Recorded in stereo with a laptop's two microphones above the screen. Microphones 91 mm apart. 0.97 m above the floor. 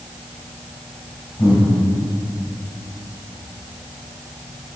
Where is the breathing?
90° left, 4.5 m.